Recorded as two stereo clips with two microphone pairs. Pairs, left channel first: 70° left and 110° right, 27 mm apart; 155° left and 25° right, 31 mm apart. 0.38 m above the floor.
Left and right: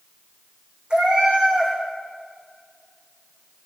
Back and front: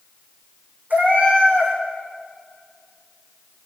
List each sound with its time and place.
0.9 s a cat meowing: 60° right, 3.5 m